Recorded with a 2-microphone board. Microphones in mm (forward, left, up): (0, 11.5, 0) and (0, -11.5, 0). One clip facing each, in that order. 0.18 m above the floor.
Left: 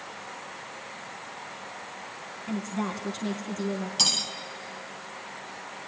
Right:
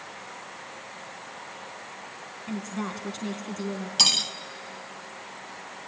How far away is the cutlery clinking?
About 0.8 m.